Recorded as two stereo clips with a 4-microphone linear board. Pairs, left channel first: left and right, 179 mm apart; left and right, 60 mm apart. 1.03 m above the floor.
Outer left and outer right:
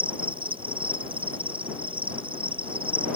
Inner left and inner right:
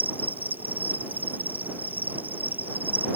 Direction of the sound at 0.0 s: 30° right (ahead or behind).